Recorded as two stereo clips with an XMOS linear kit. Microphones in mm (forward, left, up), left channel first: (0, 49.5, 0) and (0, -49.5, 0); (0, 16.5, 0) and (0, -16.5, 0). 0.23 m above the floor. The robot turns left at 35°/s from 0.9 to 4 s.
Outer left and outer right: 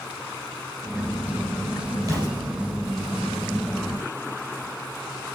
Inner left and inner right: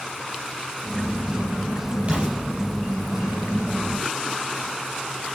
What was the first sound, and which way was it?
An explosion, 35° right (ahead or behind).